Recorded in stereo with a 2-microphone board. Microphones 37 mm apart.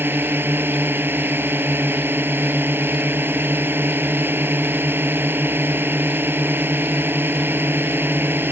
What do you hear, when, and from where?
0.0 s a drone: 70° right (ahead or behind)